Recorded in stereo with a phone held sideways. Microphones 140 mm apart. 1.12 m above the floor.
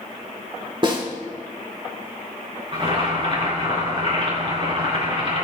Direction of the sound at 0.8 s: 35° right (ahead or behind).